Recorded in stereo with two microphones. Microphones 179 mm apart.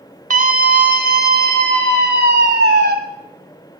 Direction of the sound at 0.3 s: 50° right (ahead or behind).